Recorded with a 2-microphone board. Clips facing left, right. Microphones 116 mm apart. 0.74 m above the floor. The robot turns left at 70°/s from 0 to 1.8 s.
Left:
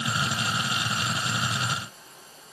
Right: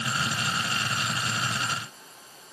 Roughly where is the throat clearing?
I don't hear throat clearing.